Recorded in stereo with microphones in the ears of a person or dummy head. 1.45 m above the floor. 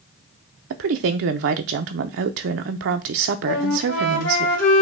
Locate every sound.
0.7 s a woman speaking: 60° right (ahead or behind), 0.5 m
3.5 s a flute: 85° left, 2 m